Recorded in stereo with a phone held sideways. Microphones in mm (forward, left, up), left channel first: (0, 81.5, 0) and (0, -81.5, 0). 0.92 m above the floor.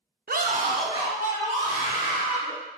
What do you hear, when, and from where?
0.3 s a scream: 70° right (ahead or behind), 0.5 m; by 2.5 s 10° right (ahead or behind), 3.5 m